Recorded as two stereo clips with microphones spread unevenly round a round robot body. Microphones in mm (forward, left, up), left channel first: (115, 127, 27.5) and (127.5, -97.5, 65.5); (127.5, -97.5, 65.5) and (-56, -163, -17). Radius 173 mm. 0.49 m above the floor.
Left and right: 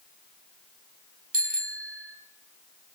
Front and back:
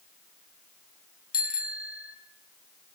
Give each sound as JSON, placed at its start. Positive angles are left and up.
{"t": 1.3, "sound": "a bicycle bell", "azimuth_deg": -30, "distance_m": 3.5}